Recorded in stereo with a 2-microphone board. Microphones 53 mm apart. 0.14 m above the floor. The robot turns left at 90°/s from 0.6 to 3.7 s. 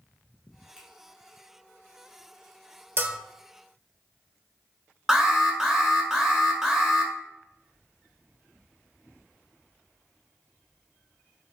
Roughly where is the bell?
Right.